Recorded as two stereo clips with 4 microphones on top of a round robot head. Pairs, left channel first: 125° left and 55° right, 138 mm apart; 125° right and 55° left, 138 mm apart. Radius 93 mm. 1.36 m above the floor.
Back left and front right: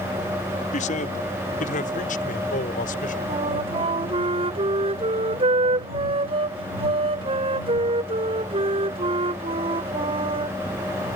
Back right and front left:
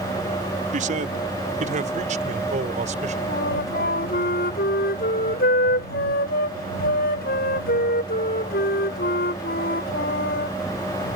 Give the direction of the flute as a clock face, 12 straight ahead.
3 o'clock.